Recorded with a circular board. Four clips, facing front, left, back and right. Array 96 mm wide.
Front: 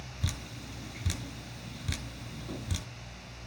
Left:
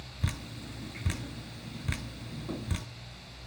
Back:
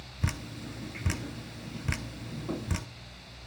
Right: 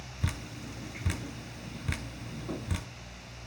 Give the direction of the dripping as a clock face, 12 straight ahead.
6 o'clock.